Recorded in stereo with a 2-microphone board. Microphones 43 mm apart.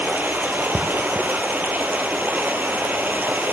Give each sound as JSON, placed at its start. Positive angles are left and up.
{"t": 0.0, "sound": "running water", "side_deg": -45, "distance_m": 1.7}